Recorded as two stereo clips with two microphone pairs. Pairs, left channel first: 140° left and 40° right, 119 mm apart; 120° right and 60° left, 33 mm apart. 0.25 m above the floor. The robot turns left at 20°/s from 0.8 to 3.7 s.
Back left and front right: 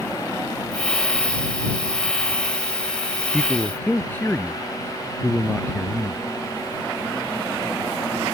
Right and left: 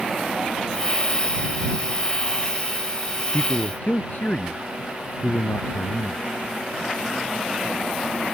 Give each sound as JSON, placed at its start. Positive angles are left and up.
{"t": 3.3, "sound": "a man speaking", "azimuth_deg": -135}